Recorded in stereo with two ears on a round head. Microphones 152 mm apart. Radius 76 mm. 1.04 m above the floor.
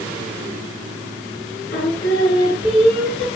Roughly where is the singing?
Left.